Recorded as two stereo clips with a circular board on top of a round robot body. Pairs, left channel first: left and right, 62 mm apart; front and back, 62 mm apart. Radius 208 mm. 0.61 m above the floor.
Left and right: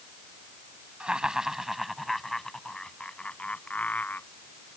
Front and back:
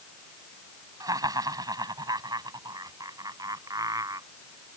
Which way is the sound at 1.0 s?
165° right.